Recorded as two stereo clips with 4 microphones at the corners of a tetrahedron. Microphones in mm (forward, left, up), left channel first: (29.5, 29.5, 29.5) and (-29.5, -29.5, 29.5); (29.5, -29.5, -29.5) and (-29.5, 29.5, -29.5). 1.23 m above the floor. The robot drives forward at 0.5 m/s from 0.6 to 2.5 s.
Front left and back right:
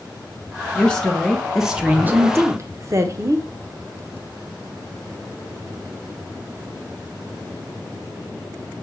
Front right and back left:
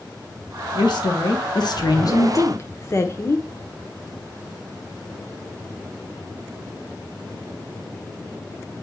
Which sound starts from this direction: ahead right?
A woman speaking, at 0.8 s.